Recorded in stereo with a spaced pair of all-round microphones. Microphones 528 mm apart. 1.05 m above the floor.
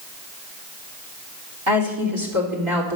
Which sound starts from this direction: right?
A woman speaking, at 1.7 s.